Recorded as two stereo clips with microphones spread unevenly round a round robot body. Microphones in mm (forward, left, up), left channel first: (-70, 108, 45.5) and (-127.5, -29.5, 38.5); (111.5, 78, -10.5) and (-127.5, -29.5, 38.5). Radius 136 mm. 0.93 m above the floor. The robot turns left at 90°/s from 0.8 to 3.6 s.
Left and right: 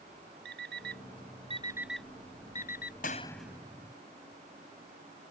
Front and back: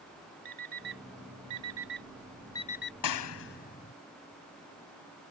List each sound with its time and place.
0.5 s an alarm clock: 100° right; by 2.9 s 70° left
3.0 s a clap: 10° left; by 3.9 s 40° right